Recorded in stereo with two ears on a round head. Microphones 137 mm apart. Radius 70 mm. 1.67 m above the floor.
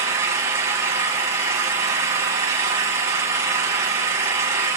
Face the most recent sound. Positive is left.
turn(degrees=-20)  # may be behind; listen again after turning